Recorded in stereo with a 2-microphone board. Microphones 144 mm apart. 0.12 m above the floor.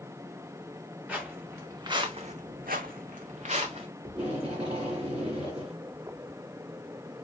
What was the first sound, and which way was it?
Footsteps, 10° right (ahead or behind).